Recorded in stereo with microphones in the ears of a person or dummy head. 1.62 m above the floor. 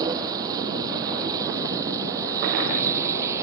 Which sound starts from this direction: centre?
A vehicle, at 0.0 s.